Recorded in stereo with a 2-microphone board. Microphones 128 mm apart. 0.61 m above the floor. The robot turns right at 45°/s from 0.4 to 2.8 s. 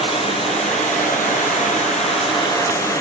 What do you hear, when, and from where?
0.0 s running water: 50° left, 3 m; by 3.0 s 160° left, 3 m